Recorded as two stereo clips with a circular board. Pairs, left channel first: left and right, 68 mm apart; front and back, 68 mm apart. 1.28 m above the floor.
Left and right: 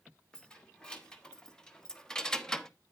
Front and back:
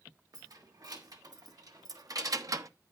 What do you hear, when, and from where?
0.3 s keys jangling: 165° left, 2.5 m; by 2.7 s 170° left, 0.8 m